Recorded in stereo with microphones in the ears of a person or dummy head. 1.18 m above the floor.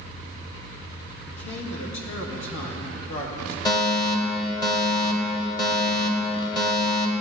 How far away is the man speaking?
About 1.9 m.